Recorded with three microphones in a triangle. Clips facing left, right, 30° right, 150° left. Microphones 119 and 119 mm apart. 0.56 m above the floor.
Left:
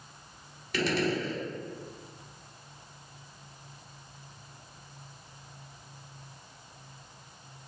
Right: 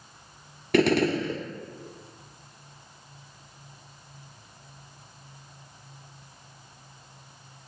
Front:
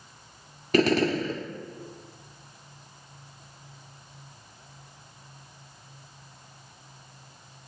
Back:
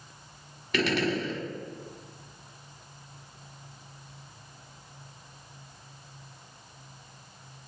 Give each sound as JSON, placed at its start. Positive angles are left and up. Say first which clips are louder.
{"t": 0.7, "sound": "a gunshot", "louder": "right 7 dB, front 5 dB", "azimuth_deg": -75, "distance_m": 0.7}